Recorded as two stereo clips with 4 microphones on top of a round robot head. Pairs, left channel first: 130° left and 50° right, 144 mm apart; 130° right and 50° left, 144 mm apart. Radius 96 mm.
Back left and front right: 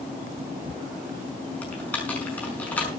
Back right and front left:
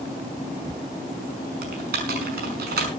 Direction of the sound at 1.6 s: 50° left.